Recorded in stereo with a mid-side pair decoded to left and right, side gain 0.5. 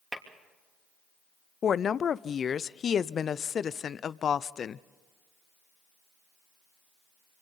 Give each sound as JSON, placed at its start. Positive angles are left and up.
{"t": 0.1, "sound": "tapping", "azimuth_deg": -5, "distance_m": 3.0}
{"t": 1.6, "sound": "a woman speaking", "azimuth_deg": 45, "distance_m": 0.5}